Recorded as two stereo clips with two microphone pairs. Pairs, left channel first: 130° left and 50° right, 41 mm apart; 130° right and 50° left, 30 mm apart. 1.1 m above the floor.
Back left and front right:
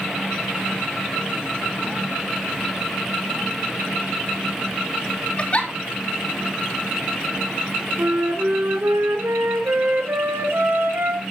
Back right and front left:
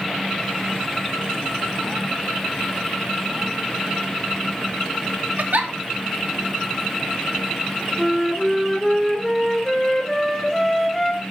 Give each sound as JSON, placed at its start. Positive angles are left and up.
{"t": 5.4, "sound": "a giggle", "azimuth_deg": 75, "distance_m": 2.5}
{"t": 8.0, "sound": "a flute", "azimuth_deg": -50, "distance_m": 2.5}